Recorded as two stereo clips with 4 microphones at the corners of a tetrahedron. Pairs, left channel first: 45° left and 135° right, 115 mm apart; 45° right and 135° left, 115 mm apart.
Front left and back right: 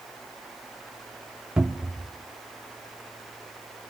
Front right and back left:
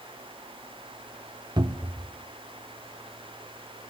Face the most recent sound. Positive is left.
turn(degrees=145)